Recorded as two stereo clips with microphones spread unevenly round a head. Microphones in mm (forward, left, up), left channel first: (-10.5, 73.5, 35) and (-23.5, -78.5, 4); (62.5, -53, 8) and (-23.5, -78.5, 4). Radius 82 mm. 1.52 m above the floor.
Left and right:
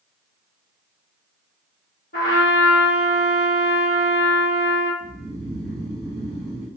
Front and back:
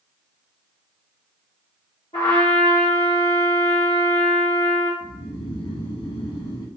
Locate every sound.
2.1 s a trumpet: 60° left, 1.1 m
5.0 s snoring: 5° right, 1.1 m